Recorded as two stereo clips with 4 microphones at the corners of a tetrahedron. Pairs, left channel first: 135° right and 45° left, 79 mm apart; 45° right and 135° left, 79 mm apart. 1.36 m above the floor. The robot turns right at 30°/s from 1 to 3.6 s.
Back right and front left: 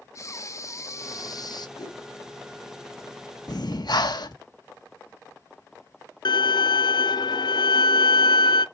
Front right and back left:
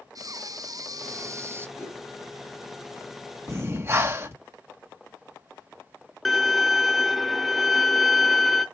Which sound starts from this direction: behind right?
A violin, at 6.2 s.